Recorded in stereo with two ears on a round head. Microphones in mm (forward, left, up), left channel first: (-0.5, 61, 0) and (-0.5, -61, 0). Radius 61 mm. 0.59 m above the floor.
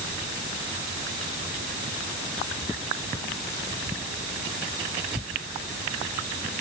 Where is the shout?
No shout in this recording.